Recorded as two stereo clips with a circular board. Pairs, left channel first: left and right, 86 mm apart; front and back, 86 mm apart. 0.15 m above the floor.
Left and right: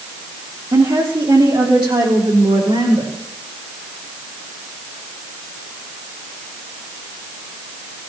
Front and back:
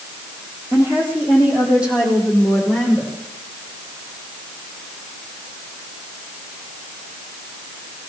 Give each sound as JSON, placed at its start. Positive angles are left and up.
{"t": 0.7, "sound": "a woman speaking", "azimuth_deg": -115, "distance_m": 6.0}